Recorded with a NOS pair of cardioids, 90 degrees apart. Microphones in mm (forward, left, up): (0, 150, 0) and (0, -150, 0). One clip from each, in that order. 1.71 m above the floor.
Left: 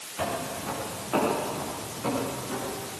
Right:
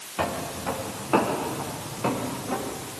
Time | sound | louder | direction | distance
0.2 | footsteps | right 2 dB | 50° right | 9 m